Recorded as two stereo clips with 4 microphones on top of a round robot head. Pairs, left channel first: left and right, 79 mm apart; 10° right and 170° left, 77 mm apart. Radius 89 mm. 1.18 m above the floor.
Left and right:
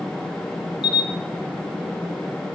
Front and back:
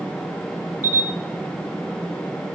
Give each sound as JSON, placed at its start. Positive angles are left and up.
{"t": 0.8, "sound": "a camera shutter", "azimuth_deg": 110, "distance_m": 1.6}